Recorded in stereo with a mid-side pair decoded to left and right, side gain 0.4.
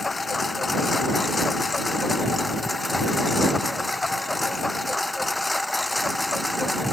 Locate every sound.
0.0 s a lawn mower: 30° left; by 6.9 s 10° left